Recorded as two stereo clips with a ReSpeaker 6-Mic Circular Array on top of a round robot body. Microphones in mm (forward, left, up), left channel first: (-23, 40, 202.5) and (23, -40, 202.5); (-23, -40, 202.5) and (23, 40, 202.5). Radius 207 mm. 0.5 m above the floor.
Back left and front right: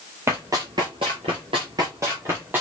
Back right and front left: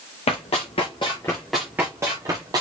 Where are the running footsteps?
120° right, 0.8 m; by 2.6 s 10° left, 1.0 m.